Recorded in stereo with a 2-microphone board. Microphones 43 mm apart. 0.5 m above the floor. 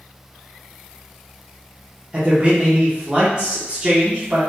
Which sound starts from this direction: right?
A man speaking, at 2.1 s.